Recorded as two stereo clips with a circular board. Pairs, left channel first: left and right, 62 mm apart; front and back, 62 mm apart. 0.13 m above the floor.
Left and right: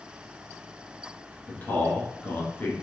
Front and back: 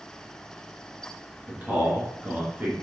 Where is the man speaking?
135° left, 1.6 m.